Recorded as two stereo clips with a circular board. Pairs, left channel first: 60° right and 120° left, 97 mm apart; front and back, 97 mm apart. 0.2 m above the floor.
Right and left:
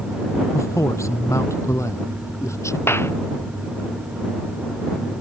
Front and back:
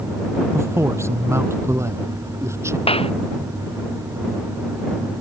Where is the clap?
5° left.